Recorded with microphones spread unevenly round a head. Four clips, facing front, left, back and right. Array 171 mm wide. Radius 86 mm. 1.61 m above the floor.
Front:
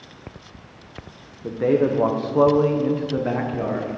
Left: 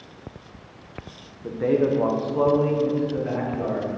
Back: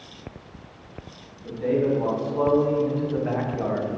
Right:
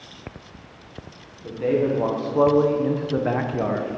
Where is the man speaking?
15° left, 1.0 m; by 3.9 s 75° right, 1.0 m.